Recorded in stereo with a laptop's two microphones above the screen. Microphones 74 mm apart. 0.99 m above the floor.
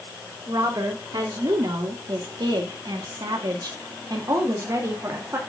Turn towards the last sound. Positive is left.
turn(degrees=-40)  # may be behind; listen again after turning